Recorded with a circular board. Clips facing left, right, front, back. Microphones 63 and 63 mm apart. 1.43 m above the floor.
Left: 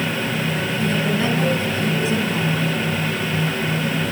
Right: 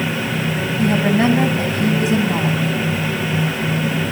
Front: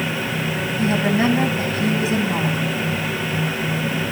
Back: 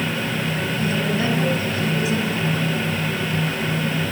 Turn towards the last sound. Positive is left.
turn(degrees=-55)